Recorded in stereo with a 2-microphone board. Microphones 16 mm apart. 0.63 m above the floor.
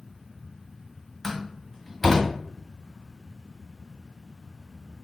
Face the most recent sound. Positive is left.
turn(degrees=15)  # may be behind; listen again after turning